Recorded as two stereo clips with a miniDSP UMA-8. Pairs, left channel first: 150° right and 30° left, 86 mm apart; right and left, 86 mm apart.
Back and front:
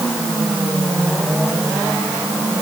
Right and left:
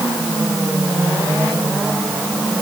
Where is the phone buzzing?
I don't hear a phone buzzing.